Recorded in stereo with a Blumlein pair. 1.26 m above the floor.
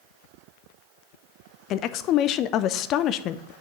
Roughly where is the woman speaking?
Ahead left.